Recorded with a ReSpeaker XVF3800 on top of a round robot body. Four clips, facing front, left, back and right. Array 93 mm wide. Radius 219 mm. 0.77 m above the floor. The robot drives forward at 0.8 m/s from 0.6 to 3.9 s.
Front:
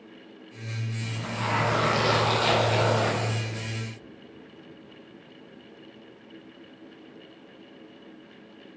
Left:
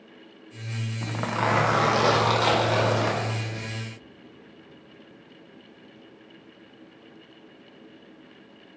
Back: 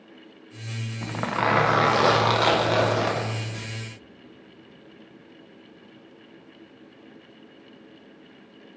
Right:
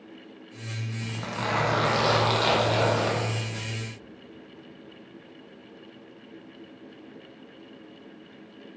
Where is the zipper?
140° left, 0.6 m; by 3.7 s 175° left, 2.5 m.